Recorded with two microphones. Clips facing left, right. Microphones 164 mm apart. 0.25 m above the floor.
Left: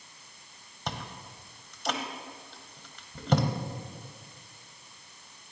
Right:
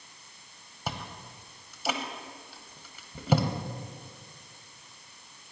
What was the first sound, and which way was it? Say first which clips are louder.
Chewing: even; 5° right (ahead or behind).